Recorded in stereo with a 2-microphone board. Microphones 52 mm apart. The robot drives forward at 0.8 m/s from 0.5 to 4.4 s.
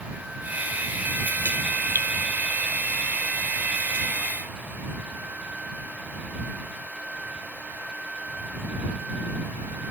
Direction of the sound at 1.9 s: 45° right (ahead or behind).